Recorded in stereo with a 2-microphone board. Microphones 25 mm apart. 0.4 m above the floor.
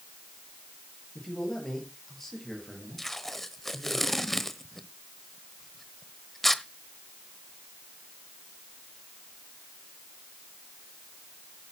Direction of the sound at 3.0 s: 10° left (ahead or behind).